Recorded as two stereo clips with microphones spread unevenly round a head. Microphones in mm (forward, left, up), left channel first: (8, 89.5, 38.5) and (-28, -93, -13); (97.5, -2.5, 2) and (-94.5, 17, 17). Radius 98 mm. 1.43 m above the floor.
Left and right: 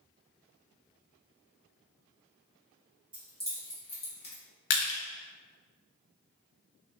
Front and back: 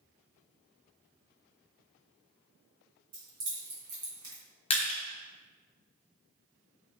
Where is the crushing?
55° left, 0.6 m.